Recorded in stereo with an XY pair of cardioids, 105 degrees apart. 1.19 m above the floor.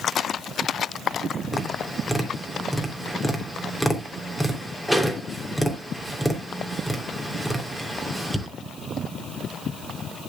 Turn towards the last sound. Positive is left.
turn(degrees=0)